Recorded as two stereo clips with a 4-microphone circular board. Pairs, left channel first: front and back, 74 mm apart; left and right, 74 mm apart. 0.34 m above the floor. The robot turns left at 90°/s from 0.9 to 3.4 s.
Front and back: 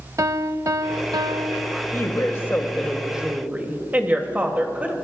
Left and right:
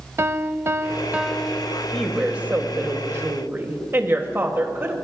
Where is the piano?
140° right, 0.6 m; by 1.8 s 135° left, 0.6 m.